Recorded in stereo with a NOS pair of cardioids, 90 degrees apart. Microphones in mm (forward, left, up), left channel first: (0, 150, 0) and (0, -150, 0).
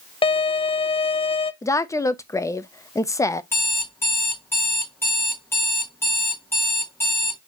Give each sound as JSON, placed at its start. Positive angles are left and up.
{"t": 0.2, "sound": "a violin", "azimuth_deg": 20, "distance_m": 0.6}
{"t": 1.6, "sound": "a woman speaking", "azimuth_deg": 10, "distance_m": 0.6}
{"t": 3.5, "sound": "an alarm clock", "azimuth_deg": 10, "distance_m": 1.6}